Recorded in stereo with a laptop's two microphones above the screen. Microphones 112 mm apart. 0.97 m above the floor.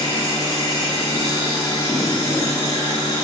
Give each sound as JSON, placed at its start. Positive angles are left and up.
{"t": 0.0, "sound": "a machine running", "side_deg": 35, "distance_m": 1.9}